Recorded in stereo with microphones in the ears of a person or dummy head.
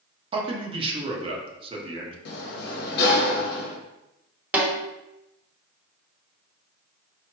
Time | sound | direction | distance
0.3 | a man speaking | 35° right (ahead or behind) | 1.1 m
2.2 | a sliding door | 60° left (ahead or behind) | 1.0 m
4.5 | a snare drum | 10° right (ahead or behind) | 1.1 m